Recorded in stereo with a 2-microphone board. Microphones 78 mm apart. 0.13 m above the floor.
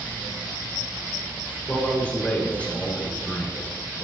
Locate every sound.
1.7 s a man speaking: 20° left (ahead or behind), 1.5 m